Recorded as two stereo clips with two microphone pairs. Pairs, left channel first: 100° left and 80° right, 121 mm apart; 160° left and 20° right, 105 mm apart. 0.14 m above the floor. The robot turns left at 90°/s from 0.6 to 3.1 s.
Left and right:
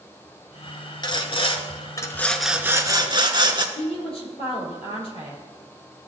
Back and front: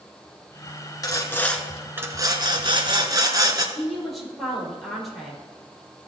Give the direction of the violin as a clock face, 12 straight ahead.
I don't hear a violin.